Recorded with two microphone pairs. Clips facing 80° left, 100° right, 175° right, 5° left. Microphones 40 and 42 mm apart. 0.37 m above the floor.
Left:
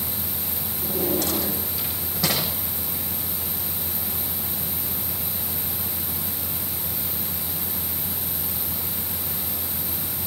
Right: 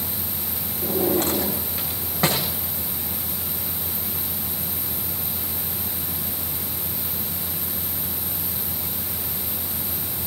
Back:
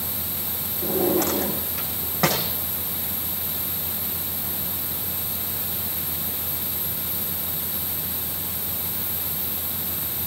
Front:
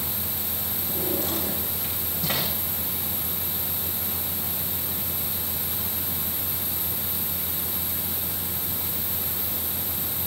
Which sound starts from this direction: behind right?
A drawer, at 0.8 s.